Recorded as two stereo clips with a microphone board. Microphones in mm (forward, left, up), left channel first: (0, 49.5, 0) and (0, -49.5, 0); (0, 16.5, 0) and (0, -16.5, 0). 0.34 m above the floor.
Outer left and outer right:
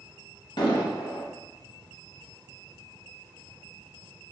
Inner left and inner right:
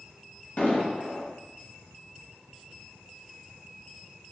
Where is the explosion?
60° left (ahead or behind), 0.8 m.